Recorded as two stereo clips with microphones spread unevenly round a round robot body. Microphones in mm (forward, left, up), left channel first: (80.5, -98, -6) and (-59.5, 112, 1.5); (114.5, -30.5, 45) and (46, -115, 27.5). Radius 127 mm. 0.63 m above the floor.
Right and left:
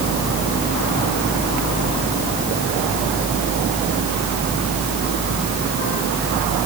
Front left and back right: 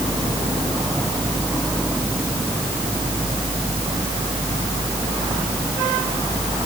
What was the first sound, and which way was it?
Only background noise.